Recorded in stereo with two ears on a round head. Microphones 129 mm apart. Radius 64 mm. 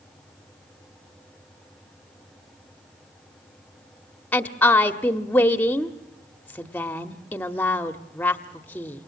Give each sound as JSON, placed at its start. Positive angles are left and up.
{"t": 4.3, "sound": "a woman speaking", "side_deg": 10, "distance_m": 1.0}